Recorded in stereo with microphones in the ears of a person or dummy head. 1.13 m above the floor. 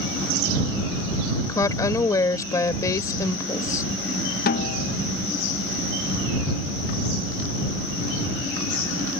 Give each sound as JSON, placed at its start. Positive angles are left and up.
{"t": 1.5, "sound": "a woman speaking", "side_deg": 15}
{"t": 4.5, "sound": "a snare drum", "side_deg": 45}